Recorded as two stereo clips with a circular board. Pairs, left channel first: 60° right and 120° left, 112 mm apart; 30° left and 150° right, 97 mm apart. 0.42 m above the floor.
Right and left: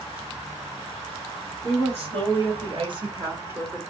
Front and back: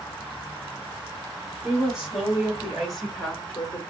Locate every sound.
1.6 s a woman speaking: 130° left, 2.5 m; by 3.8 s 45° left, 1.0 m